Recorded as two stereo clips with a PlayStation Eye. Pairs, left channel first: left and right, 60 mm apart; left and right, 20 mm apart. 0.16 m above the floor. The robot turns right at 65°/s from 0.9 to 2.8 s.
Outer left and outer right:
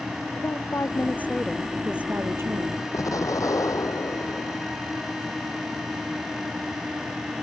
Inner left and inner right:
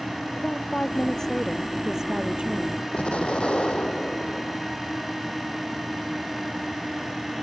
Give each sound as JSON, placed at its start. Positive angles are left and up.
{"t": 0.4, "sound": "a woman speaking", "azimuth_deg": 130}
{"t": 2.9, "sound": "an explosion", "side_deg": 75}